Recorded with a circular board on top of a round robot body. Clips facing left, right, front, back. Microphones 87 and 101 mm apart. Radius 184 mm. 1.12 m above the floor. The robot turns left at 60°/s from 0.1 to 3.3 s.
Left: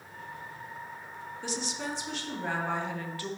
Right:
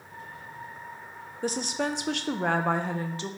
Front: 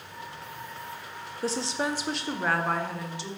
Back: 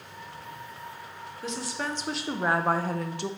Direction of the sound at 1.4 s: 45° right.